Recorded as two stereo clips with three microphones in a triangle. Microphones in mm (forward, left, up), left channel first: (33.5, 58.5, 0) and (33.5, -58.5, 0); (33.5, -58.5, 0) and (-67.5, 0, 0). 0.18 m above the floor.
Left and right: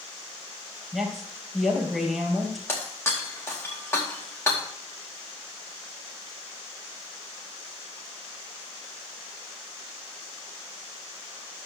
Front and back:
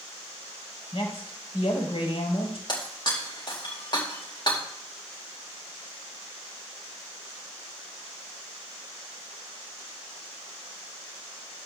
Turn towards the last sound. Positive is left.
turn(degrees=20)